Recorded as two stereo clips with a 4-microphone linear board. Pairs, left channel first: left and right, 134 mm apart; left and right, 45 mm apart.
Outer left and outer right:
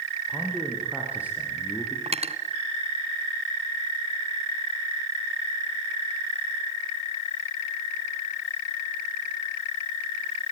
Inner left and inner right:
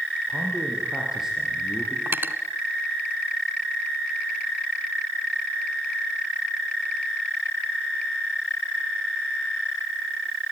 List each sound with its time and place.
0.3 s a man speaking: 10° right (ahead or behind), 6 m
2.1 s cutlery clinking: 50° right (ahead or behind), 1.3 m